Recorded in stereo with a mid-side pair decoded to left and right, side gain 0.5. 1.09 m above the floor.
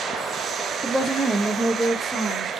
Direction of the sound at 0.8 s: 15° right.